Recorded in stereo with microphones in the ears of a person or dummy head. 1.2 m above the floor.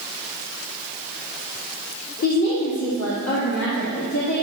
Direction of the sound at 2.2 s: 75° left (ahead or behind).